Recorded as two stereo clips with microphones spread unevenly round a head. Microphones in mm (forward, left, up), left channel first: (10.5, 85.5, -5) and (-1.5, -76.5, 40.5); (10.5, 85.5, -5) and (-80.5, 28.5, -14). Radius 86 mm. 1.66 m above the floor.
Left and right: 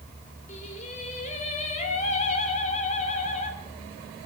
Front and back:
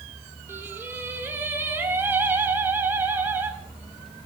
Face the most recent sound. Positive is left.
turn(degrees=140)